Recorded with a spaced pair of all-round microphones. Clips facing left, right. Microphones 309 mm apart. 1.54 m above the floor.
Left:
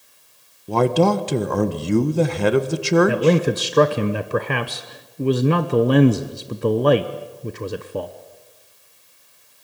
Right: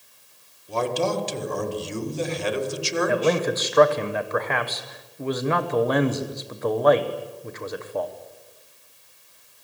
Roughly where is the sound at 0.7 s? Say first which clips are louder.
Left 8 dB; left.